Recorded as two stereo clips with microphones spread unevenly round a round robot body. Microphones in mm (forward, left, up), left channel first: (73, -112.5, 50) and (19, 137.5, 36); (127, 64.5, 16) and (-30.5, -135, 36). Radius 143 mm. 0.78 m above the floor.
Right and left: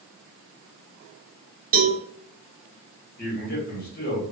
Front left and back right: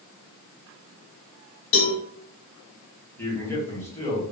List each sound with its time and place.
1.7 s a cowbell: 60° left, 0.8 m
3.2 s a man speaking: 25° right, 1.6 m